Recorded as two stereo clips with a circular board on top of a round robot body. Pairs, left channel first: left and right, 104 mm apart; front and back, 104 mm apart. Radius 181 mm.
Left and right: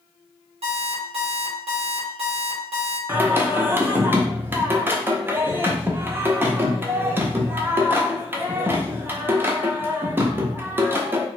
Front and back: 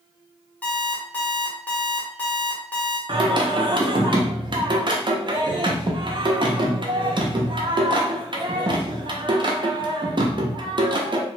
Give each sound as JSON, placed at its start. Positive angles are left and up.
{"t": 0.6, "sound": "an alarm clock", "azimuth_deg": -75, "distance_m": 1.5}
{"t": 3.1, "sound": "singing", "azimuth_deg": -155, "distance_m": 0.8}